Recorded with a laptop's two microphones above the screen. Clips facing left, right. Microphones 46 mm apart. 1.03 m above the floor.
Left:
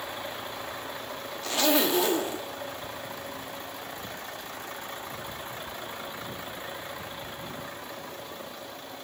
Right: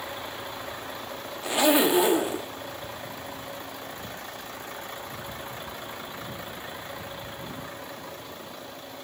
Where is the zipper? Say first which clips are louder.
Right 4 dB; 15° right (ahead or behind), 1.0 m.